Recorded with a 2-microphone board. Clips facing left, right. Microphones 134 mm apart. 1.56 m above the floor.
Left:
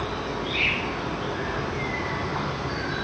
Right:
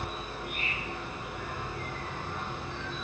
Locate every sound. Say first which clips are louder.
0.0 s an insect: left 9 dB; 80° left, 0.8 m